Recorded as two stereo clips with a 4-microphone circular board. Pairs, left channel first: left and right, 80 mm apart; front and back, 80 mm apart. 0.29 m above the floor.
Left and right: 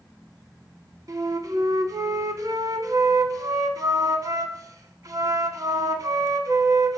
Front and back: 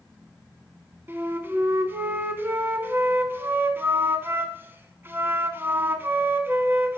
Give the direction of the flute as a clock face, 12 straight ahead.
4 o'clock.